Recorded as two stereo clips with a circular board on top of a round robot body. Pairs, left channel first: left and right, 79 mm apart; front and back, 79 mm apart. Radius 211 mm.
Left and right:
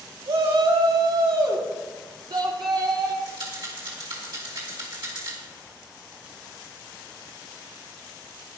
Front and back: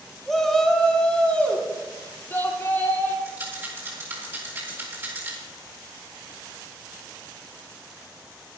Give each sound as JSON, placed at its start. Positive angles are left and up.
{"t": 0.3, "sound": "a shout", "azimuth_deg": -85, "distance_m": 2.5}
{"t": 3.2, "sound": "a rattle", "azimuth_deg": -120, "distance_m": 3.0}